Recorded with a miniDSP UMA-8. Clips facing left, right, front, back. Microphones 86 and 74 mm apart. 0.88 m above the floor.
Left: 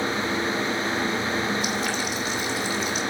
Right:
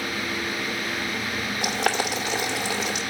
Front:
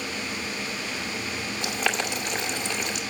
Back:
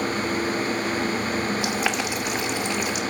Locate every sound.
1.6 s boiling: 95° right, 2.5 m